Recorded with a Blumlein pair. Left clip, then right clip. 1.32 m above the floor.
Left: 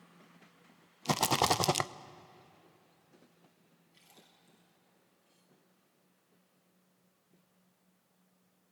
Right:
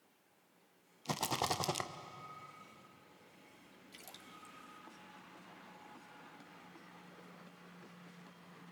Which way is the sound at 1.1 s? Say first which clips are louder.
Left 8 dB; 25° left.